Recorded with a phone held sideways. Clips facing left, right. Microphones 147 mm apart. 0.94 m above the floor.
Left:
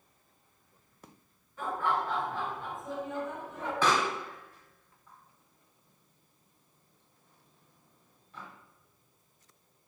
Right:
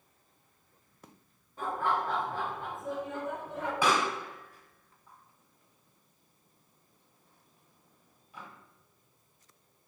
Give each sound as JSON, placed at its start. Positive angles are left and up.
{"t": 1.6, "sound": "laughter", "side_deg": -35, "distance_m": 3.5}
{"t": 3.8, "sound": "a pop", "side_deg": -10, "distance_m": 1.4}